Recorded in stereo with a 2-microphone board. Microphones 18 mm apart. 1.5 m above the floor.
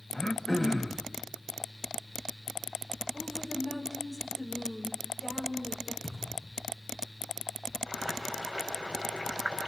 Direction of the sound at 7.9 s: 60° right (ahead or behind).